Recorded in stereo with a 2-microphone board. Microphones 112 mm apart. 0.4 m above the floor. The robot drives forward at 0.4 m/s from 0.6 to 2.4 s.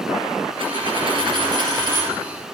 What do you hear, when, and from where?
0.6 s a dropped coin: 50° right (ahead or behind), 1.7 m; by 2.2 s 35° right (ahead or behind), 2 m